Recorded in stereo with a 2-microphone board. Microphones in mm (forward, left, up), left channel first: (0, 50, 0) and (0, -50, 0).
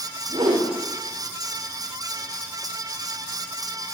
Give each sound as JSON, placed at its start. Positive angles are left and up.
{"t": 0.3, "sound": "a whoosh", "side_deg": -70, "distance_m": 1.5}